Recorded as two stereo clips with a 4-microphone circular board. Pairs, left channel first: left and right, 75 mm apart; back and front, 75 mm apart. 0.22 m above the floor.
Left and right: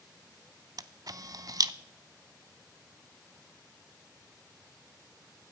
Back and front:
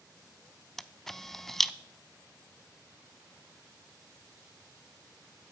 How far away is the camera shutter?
About 0.6 m.